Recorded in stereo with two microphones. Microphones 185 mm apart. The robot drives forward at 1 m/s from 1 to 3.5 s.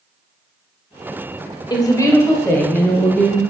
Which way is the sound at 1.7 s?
25° left (ahead or behind).